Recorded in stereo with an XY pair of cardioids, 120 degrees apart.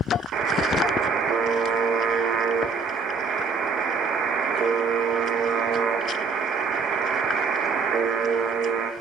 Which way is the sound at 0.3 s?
55° right.